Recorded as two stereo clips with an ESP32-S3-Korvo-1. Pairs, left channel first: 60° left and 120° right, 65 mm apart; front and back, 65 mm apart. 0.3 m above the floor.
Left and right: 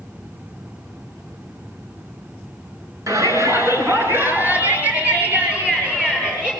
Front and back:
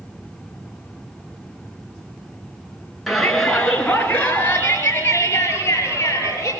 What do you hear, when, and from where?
3.1 s a shout: 90° right, 4 m; by 6.5 s 45° right, 7.5 m